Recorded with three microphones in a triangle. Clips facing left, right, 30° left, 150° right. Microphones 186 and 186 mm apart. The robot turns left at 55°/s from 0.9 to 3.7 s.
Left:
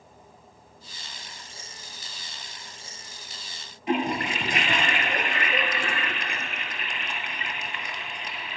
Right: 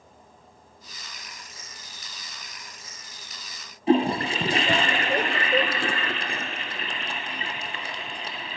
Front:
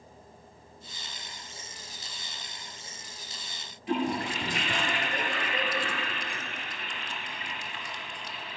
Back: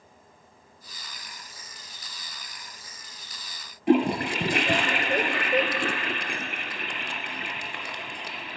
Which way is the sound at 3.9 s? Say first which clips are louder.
Right 5 dB, back 8 dB; 145° right.